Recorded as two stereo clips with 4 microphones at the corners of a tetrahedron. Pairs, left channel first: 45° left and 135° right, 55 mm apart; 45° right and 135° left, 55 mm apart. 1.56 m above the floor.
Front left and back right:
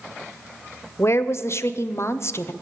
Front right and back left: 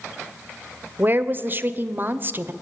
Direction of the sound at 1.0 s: 80° left.